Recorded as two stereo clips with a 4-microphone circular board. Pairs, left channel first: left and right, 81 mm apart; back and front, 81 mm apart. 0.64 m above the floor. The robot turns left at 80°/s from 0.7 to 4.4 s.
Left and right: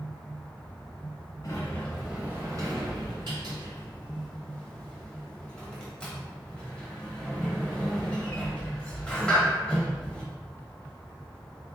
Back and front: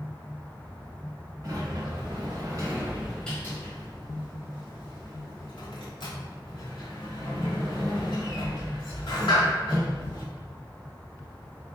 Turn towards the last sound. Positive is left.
turn(degrees=170)